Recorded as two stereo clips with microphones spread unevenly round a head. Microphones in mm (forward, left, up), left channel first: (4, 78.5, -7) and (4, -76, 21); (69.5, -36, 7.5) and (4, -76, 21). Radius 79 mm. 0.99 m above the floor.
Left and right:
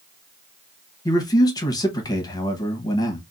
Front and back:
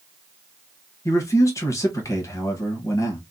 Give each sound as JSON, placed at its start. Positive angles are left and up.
{"t": 1.1, "sound": "a man speaking", "azimuth_deg": 45, "distance_m": 1.0}